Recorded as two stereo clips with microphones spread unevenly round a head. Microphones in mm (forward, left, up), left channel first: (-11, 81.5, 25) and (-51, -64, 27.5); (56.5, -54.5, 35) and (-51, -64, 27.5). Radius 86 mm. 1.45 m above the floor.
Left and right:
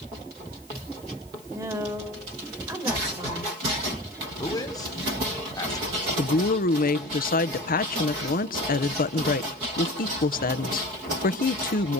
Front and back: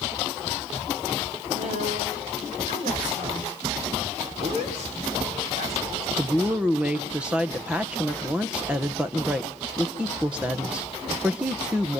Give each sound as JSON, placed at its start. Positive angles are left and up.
{"t": 1.5, "sound": "a woman speaking", "azimuth_deg": -175, "distance_m": 7.5}
{"t": 4.4, "sound": "a man speaking", "azimuth_deg": 140, "distance_m": 5.5}
{"t": 6.2, "sound": "a woman speaking", "azimuth_deg": 100, "distance_m": 1.3}